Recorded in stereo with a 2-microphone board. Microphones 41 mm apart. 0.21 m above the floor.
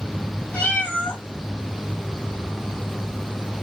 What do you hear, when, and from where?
0.5 s a cat meowing: 35° left (ahead or behind), 3 m